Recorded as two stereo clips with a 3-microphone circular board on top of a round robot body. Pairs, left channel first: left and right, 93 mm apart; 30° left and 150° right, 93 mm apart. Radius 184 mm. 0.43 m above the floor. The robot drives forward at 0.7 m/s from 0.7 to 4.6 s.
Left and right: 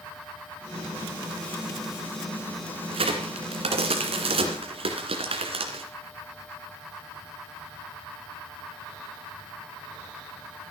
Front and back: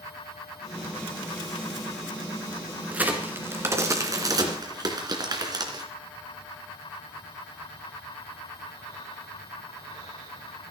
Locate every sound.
2.9 s a crack: 75° right, 2.5 m; by 5.8 s 105° right, 2.5 m